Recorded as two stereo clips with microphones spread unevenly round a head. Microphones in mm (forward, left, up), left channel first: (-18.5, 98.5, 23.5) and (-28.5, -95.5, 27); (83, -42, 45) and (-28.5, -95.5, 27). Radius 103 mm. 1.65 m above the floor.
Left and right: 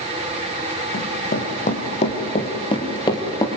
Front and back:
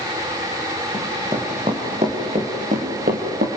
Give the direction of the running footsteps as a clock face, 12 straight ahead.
8 o'clock.